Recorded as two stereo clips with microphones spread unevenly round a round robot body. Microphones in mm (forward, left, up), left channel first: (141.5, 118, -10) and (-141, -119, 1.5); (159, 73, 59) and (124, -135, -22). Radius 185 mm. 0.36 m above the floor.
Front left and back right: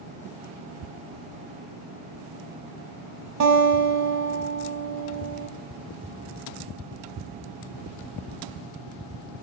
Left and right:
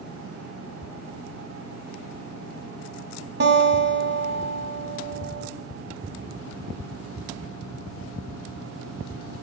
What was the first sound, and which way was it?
A guitar, 95° right.